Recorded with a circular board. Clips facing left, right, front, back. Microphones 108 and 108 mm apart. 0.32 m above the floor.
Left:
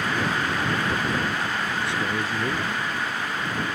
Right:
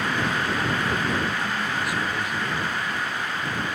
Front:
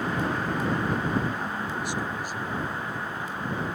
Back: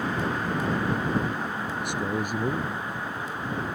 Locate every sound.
1.8 s a man speaking: 150° left; by 2.9 s 145° left